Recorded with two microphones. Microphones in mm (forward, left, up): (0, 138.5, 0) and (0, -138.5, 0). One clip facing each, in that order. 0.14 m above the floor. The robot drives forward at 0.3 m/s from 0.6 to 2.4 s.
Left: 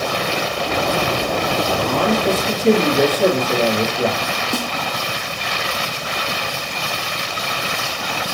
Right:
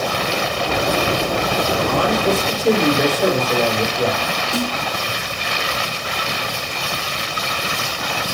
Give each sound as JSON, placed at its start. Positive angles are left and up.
{"t": 1.7, "sound": "a man speaking", "side_deg": 30, "distance_m": 3.5}
{"t": 4.5, "sound": "a snare drum", "side_deg": 55, "distance_m": 1.3}